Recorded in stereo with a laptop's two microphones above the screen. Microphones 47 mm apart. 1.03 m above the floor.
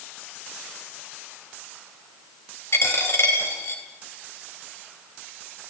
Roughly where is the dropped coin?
Left.